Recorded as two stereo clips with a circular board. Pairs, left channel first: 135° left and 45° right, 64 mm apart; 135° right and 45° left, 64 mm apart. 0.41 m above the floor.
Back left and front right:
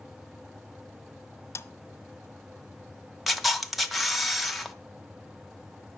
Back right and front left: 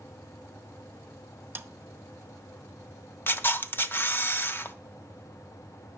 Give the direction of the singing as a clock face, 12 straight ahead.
I don't hear singing.